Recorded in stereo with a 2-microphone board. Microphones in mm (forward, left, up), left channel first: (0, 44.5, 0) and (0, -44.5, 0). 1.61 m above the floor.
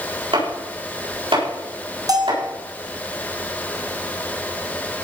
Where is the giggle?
No giggle in this recording.